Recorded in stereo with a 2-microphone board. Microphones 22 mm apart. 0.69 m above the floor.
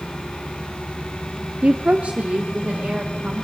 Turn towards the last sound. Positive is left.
turn(degrees=-70)  # may be behind; listen again after turning